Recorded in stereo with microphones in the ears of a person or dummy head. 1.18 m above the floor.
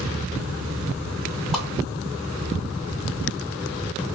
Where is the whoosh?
Centre (ahead or behind), 1.4 m.